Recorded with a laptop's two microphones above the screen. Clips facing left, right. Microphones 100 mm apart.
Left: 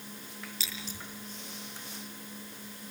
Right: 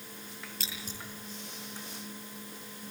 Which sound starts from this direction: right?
Scissors, at 0.6 s.